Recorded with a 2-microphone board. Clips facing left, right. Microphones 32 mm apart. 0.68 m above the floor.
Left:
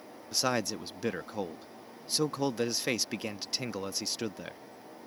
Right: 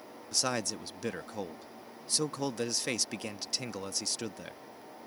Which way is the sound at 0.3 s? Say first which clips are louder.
Left 2 dB; 10° left (ahead or behind).